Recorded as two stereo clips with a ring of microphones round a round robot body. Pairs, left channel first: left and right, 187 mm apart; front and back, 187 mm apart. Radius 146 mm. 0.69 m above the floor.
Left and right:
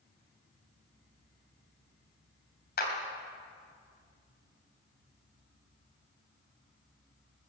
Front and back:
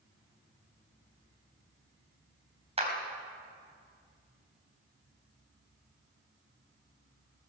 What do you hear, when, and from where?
2.8 s a clap: 125° left, 3.5 m